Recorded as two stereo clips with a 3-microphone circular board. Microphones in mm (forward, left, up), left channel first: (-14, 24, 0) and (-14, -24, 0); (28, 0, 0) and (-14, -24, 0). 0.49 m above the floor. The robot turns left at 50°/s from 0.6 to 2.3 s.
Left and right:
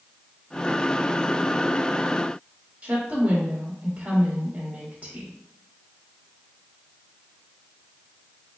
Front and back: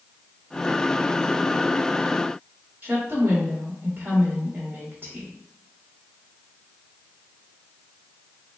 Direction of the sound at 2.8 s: 130° right.